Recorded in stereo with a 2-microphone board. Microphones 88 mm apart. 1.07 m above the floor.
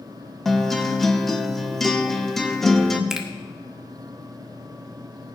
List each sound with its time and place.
0.5 s a guitar: 5° left (ahead or behind), 1.0 m
3.1 s a finger snap: 5° right (ahead or behind), 1.2 m